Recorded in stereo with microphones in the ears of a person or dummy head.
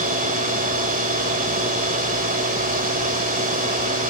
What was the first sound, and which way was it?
A machine running, 40° right (ahead or behind).